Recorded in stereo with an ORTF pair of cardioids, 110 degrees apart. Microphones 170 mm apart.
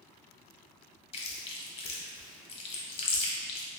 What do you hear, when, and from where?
1.1 s chewing: 35° left, 0.8 m